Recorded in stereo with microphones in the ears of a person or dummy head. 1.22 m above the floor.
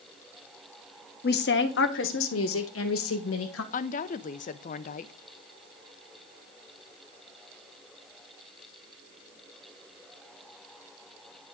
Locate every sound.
1.2 s a woman speaking: 50° left (ahead or behind), 1.0 m; by 3.6 s 75° left (ahead or behind), 2 m
3.7 s a woman speaking: 35° left (ahead or behind), 0.5 m